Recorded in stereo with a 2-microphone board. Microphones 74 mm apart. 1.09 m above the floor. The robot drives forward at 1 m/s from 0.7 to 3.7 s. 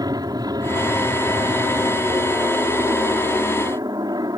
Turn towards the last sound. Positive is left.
turn(degrees=-65)  # may be behind; listen again after turning